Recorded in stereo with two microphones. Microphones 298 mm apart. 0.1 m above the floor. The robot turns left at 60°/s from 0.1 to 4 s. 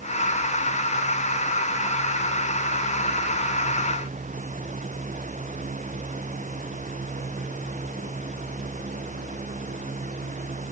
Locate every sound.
Only background noise.